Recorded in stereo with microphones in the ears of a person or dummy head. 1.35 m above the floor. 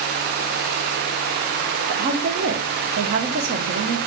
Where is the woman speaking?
50° right (ahead or behind), 0.7 m.